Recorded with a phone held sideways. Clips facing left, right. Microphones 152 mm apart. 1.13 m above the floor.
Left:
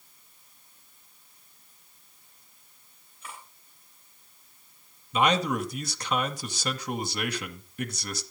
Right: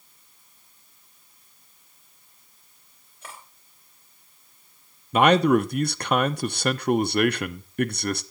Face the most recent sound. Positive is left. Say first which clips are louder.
# right 7 dB
turn(degrees=-55)  # may be behind; listen again after turning